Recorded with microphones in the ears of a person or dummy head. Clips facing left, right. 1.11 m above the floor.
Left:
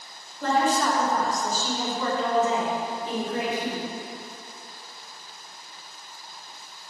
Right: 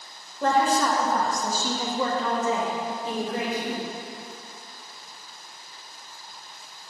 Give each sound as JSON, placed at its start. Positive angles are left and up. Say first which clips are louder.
{"t": 0.4, "sound": "a woman speaking", "louder": "right 1 dB", "side_deg": -60, "distance_m": 1.2}